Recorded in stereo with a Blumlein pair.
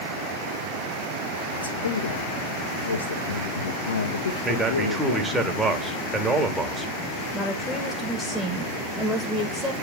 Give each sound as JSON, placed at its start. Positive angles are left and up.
{"t": 1.6, "sound": "a man speaking", "azimuth_deg": 70, "distance_m": 1.4}
{"t": 4.4, "sound": "a man speaking", "azimuth_deg": -10, "distance_m": 1.5}
{"t": 7.3, "sound": "a woman speaking", "azimuth_deg": 5, "distance_m": 1.5}